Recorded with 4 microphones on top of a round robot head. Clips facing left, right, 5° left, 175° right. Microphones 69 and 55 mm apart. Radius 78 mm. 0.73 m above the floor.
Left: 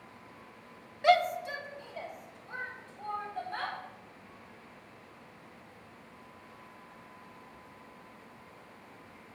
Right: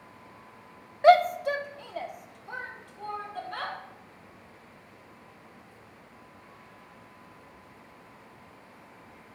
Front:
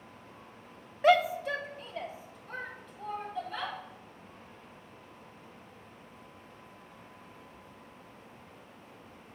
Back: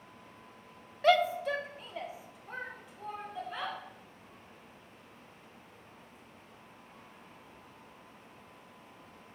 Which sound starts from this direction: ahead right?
A shout, at 1.0 s.